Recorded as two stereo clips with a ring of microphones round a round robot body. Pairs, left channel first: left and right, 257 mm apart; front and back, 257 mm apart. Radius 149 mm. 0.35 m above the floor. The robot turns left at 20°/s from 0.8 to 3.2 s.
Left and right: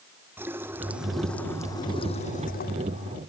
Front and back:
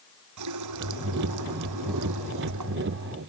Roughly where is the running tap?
Behind.